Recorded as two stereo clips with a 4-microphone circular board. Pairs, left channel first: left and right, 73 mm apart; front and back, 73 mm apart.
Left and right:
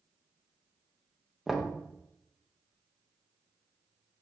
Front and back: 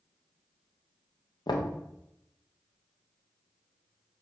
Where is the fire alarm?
I don't hear a fire alarm.